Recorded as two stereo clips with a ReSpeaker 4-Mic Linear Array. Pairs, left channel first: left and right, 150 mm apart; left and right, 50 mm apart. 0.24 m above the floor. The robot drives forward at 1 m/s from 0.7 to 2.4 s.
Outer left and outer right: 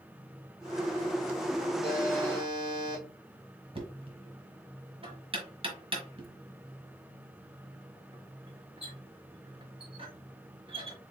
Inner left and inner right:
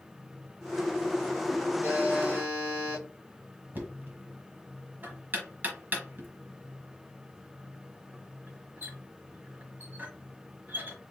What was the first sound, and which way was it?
A buzzer, 35° right (ahead or behind).